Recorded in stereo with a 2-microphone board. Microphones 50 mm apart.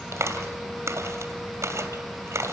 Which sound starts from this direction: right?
A clap, at 0.1 s.